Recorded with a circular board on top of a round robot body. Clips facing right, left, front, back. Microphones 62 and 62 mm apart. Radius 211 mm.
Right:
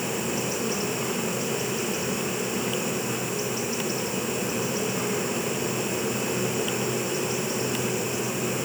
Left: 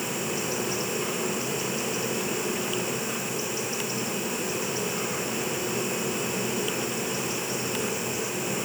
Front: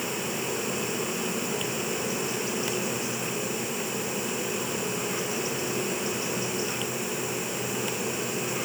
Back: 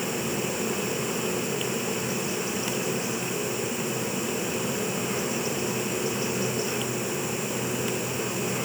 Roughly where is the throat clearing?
I don't hear throat clearing.